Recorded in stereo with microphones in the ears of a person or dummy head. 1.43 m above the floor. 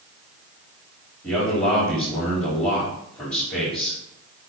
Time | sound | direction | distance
1.2 | a man speaking | 15° left (ahead or behind) | 4 m